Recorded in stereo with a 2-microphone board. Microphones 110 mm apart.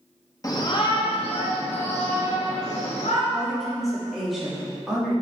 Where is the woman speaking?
Centre (ahead or behind), 3 m.